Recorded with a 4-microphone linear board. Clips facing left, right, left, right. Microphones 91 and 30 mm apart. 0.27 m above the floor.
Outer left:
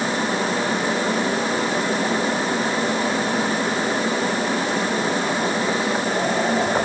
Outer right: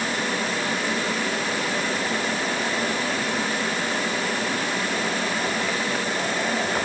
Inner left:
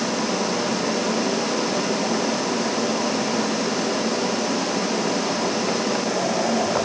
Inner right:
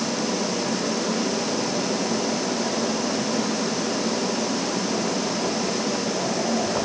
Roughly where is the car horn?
No car horn in this recording.